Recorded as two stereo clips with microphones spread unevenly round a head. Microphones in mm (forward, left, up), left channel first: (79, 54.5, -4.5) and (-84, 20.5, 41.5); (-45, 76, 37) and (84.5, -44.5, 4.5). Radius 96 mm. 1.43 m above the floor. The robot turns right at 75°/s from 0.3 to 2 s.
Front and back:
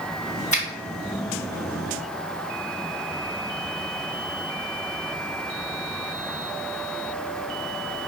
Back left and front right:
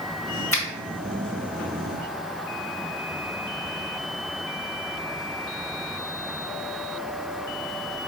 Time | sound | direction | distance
0.5 | a finger snap | 60° left | 1.6 m